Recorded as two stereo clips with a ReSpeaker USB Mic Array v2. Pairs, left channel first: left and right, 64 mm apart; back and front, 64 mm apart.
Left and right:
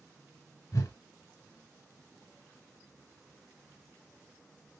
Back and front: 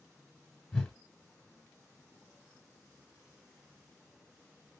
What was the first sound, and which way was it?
A whoosh, 105° left.